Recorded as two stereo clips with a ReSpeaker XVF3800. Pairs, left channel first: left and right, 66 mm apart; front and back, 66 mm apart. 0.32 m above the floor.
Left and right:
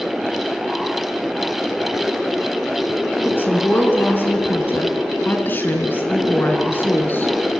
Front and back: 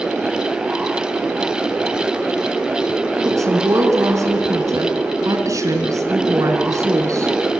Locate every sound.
3.2 s a woman speaking: 150° left, 3.5 m